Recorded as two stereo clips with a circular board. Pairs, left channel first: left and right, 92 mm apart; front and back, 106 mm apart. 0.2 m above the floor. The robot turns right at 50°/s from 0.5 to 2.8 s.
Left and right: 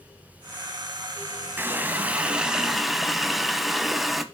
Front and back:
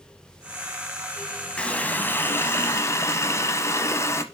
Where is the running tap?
65° right, 0.7 m; by 4.2 s 5° right, 0.7 m.